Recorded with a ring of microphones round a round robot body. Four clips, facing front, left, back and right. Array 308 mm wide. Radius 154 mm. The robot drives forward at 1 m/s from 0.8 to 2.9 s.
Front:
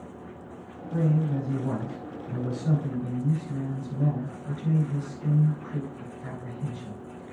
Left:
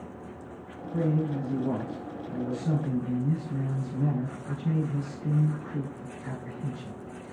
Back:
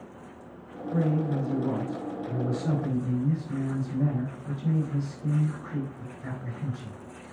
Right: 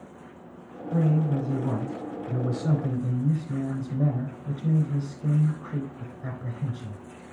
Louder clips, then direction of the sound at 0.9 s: Right 3 dB, even; 65° right.